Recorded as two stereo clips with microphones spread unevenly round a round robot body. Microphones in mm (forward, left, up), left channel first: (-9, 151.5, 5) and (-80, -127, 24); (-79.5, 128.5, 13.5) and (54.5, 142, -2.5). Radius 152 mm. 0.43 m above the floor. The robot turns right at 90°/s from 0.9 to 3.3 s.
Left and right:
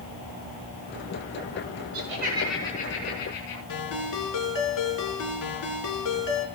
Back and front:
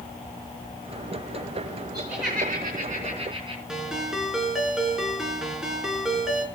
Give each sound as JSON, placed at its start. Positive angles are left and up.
{"t": 1.9, "sound": "laughter", "azimuth_deg": -65, "distance_m": 4.0}
{"t": 3.7, "sound": "a ringtone", "azimuth_deg": 90, "distance_m": 4.0}